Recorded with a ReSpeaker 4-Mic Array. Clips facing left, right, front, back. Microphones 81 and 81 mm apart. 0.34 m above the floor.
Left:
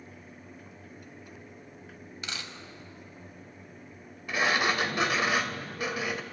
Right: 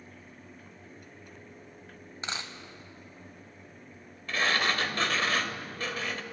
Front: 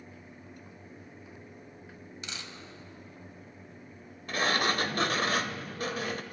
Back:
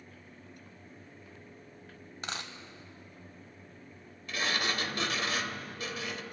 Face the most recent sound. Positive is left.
turn(degrees=20)